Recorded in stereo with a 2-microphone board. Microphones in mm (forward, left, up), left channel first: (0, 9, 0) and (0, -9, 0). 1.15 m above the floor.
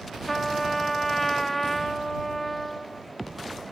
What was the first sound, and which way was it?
A trumpet, 15° left (ahead or behind).